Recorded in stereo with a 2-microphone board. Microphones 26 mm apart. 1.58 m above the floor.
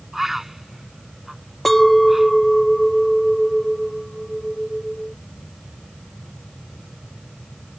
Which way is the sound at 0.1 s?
15° right (ahead or behind).